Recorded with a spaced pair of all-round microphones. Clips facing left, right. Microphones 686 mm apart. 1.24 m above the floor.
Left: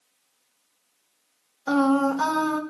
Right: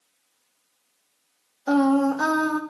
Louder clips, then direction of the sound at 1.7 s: Right 2 dB; 35° left (ahead or behind).